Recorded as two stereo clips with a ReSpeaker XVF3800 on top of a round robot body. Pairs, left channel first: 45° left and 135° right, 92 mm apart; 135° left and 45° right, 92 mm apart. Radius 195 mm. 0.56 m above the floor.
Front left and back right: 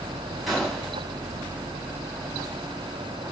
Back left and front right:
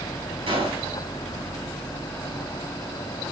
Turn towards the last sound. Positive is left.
turn(degrees=-45)